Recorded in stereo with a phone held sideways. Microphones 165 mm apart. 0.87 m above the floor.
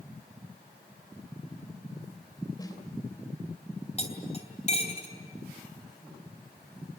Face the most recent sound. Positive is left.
turn(degrees=40)  # may be behind; listen again after turning